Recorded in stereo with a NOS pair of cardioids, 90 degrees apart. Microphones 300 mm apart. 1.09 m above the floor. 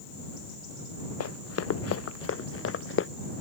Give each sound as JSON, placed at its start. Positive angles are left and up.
{"t": 1.2, "sound": "running footsteps", "azimuth_deg": 55}